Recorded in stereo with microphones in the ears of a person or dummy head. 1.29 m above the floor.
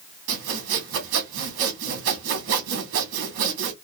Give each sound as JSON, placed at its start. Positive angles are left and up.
{"t": 0.3, "sound": "sawing", "side_deg": -65, "distance_m": 1.5}